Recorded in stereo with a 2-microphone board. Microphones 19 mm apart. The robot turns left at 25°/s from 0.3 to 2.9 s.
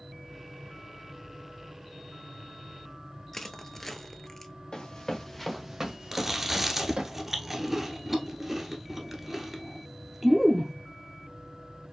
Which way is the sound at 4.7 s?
45° left (ahead or behind).